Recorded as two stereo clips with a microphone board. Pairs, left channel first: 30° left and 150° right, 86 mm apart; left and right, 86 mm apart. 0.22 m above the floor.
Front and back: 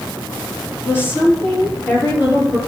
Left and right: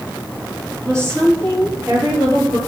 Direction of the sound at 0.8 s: 35° right.